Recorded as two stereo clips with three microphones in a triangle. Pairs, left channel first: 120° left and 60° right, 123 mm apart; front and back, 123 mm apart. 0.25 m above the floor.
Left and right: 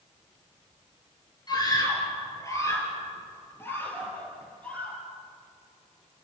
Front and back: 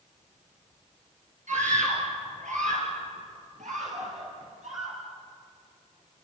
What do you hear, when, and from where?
1.5 s a scream: 175° left, 6 m; by 5.0 s 160° right, 8 m